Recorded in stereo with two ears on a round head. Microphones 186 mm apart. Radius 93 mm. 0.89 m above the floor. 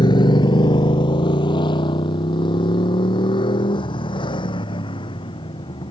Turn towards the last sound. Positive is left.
turn(degrees=25)  # may be behind; listen again after turning